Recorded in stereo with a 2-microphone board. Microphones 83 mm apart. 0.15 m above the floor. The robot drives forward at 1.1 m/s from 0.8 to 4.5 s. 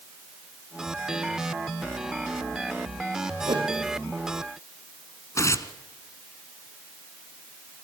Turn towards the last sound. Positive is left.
turn(degrees=35)  # may be behind; listen again after turning